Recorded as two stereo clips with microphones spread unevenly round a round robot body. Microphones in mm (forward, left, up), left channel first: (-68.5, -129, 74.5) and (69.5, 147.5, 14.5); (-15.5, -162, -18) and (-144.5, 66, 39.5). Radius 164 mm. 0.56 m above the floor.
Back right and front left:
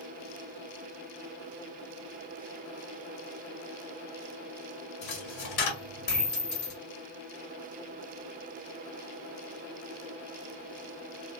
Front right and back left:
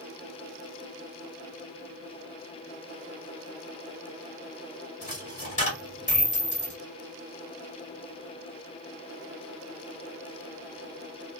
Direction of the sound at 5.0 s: 125° right.